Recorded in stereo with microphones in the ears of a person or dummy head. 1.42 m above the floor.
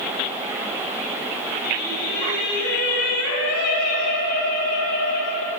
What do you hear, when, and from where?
1.6 s singing: 50° left (ahead or behind), 1.9 m